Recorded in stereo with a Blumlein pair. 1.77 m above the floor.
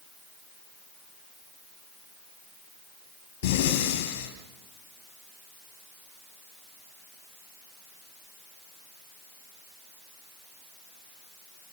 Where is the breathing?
40° left, 9 m.